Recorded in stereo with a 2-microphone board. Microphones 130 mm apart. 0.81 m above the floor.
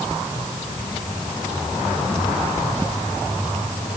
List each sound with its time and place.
Only background noise.